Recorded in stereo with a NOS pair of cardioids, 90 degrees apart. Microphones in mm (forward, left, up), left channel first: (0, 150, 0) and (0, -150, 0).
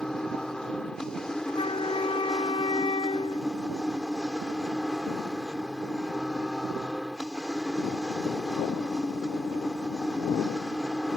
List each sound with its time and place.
0.0 s a machine running: straight ahead
1.5 s a flute: 20° left